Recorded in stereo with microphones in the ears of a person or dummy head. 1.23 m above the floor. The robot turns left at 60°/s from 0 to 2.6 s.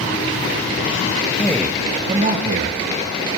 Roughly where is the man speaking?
Centre.